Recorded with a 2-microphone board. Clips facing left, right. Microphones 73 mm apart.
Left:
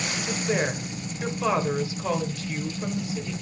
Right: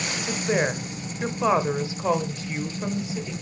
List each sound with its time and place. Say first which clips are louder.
0.3 s a woman speaking: right 2 dB; 20° right (ahead or behind), 0.9 m